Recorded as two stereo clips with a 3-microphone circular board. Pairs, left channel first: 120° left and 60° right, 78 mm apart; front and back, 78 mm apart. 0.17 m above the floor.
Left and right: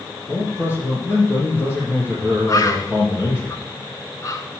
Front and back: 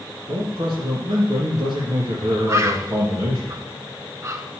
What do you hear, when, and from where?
0.3 s a man speaking: 175° left, 3 m
2.5 s a bird: 145° left, 0.9 m